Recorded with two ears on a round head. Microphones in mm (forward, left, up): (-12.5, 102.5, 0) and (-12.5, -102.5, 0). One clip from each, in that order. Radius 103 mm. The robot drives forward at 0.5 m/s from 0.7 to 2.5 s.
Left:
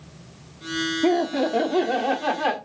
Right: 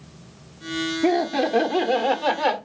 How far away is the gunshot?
I don't hear a gunshot.